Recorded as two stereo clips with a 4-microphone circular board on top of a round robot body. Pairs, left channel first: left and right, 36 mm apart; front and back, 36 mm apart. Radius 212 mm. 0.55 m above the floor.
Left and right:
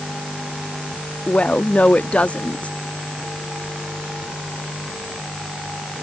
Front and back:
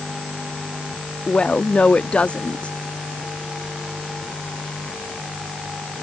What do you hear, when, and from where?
1.3 s a woman speaking: 50° left